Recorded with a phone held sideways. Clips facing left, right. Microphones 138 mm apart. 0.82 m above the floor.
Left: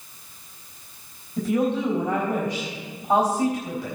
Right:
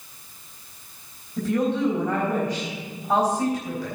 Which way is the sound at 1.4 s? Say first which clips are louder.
Even; 10° left (ahead or behind).